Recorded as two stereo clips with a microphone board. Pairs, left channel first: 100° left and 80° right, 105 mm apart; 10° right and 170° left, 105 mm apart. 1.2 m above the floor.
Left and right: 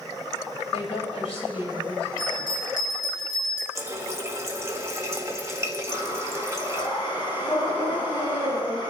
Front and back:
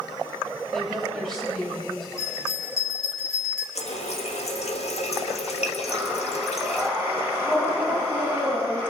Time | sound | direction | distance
0.7 | a woman speaking | 75° left | 6 m
2.2 | a bell | 50° left | 2.5 m
3.8 | a running tap | 15° right | 1.2 m
5.9 | breathing | 65° left | 6.5 m